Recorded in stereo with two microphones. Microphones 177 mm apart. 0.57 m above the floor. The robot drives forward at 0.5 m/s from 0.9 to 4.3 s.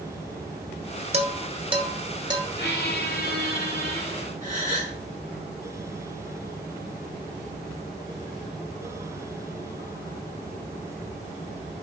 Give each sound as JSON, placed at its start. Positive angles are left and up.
{"t": 1.1, "sound": "dishes clattering", "side_deg": -40, "distance_m": 1.1}
{"t": 2.6, "sound": "a squeak", "side_deg": 75, "distance_m": 1.9}
{"t": 4.4, "sound": "a gasp", "side_deg": -45, "distance_m": 4.0}